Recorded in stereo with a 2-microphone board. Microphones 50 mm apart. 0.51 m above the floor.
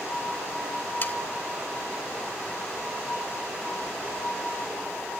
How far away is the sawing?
About 0.8 m.